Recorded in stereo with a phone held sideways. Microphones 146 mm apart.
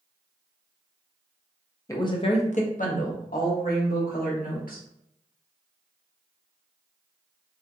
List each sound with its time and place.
1.9 s a woman speaking: 20° left (ahead or behind), 0.5 m; by 4.8 s 80° left, 1.7 m